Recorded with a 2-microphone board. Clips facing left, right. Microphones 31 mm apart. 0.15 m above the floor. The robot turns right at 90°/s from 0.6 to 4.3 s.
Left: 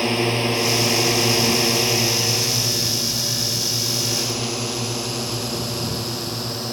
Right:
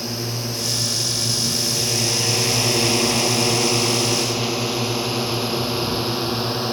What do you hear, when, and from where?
0.0 s a drone: 50° left (ahead or behind); by 6.7 s 30° right (ahead or behind)